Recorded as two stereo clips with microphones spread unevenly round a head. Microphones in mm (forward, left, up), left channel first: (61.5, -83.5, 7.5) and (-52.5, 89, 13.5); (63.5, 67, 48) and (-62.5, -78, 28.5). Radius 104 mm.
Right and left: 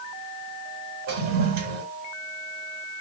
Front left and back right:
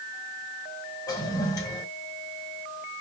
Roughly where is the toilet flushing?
Left.